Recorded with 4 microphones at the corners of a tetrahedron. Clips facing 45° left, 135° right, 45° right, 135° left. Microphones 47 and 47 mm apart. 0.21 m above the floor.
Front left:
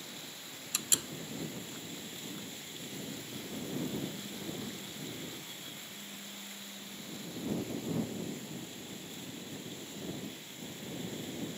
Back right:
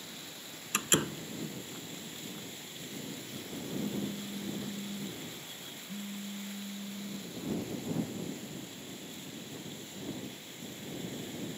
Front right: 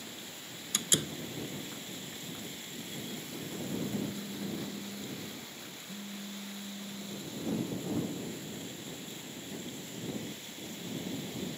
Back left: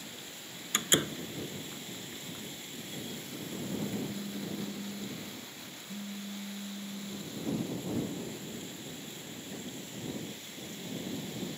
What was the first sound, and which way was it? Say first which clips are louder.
A door slam: back right 8 dB, back left 4 dB; 175° right.